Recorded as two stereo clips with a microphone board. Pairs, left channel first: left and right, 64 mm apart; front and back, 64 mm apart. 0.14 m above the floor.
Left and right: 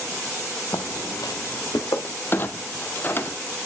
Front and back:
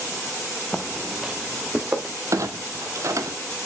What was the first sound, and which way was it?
Footsteps, 80° left.